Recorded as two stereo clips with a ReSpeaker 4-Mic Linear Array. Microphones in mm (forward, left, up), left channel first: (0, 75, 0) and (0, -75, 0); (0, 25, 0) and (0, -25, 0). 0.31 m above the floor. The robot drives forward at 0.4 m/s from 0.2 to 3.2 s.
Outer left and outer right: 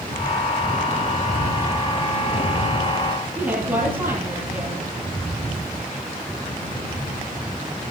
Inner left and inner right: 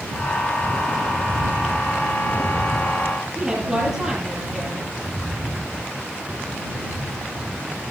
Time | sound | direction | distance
3.4 | a woman speaking | 10° right (ahead or behind) | 8.5 m